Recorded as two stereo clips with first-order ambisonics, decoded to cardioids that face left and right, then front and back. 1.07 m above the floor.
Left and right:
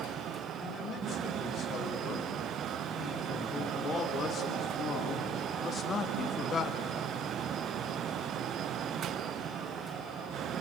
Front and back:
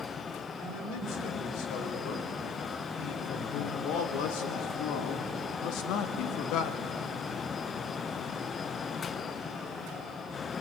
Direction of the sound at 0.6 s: 25° left.